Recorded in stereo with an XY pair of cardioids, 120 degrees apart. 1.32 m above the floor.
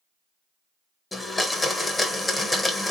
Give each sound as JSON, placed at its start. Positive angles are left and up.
{"t": 1.1, "sound": "a blender", "azimuth_deg": 15, "distance_m": 1.0}